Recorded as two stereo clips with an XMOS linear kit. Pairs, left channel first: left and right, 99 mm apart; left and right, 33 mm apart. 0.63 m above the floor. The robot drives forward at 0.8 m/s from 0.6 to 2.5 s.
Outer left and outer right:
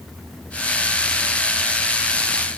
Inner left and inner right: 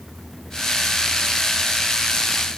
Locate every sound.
Only background noise.